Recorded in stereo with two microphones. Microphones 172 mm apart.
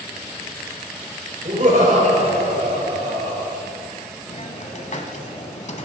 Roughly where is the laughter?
Right.